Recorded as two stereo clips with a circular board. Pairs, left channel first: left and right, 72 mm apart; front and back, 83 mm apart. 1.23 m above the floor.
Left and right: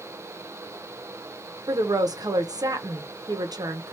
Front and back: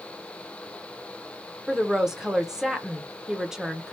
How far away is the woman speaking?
About 0.8 m.